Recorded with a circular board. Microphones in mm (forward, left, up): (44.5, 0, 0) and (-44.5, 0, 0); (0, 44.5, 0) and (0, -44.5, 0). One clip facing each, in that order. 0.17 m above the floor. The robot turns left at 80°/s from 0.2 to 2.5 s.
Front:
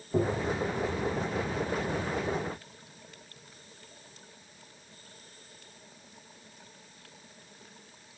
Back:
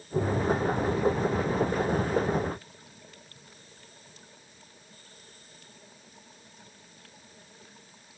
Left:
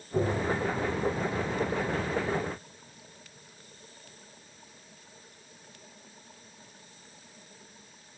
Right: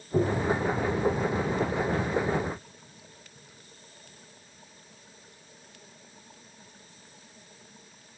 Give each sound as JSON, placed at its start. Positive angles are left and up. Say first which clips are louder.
{"t": 0.1, "sound": "tapping", "louder": "back 2 dB, right 3 dB", "azimuth_deg": -25, "distance_m": 5.5}